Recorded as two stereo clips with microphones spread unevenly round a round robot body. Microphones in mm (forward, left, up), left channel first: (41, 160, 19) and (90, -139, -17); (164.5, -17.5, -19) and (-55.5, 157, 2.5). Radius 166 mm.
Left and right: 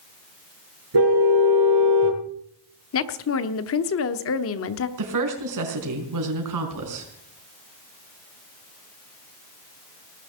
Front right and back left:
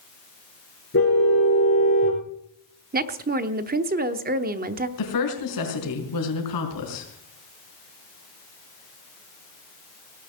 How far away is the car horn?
About 4.5 m.